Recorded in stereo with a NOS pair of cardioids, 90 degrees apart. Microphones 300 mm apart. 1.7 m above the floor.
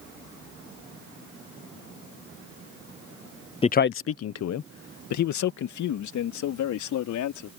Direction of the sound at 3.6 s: 20° left.